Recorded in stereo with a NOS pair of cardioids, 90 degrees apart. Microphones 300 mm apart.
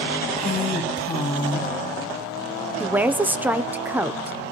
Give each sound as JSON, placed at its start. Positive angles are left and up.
{"t": 0.4, "sound": "a woman speaking", "azimuth_deg": 25, "distance_m": 3.0}
{"t": 2.8, "sound": "a woman speaking", "azimuth_deg": -5, "distance_m": 0.8}